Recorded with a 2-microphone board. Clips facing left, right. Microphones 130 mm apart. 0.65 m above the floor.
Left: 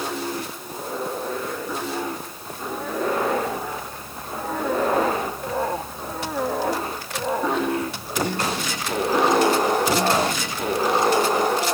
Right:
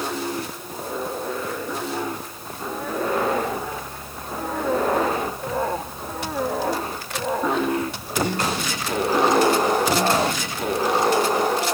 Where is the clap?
I don't hear a clap.